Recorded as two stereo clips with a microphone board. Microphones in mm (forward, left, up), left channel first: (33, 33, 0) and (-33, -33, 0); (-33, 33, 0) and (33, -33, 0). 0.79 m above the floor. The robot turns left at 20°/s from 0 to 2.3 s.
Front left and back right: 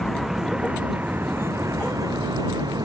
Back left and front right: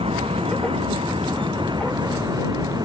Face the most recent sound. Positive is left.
turn(degrees=-90)